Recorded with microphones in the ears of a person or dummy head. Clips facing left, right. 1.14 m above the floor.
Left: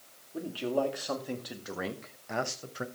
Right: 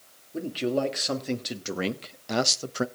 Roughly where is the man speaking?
Right.